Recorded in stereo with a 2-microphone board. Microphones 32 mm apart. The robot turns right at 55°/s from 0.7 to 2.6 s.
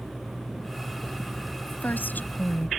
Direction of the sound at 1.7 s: 70° left.